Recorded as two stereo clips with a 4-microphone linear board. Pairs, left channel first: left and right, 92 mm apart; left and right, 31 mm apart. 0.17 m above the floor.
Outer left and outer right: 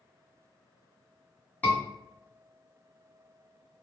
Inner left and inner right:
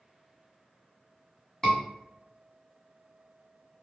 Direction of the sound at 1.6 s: 20° left (ahead or behind).